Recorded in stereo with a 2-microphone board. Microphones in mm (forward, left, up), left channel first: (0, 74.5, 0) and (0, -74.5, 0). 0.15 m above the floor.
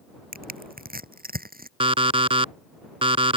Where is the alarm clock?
40° right (ahead or behind).